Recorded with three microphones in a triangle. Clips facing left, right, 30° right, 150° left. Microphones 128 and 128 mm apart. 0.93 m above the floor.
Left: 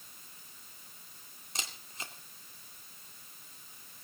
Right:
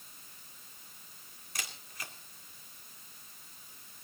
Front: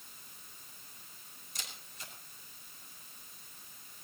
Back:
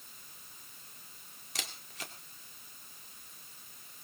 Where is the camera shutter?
155° left, 2.5 m.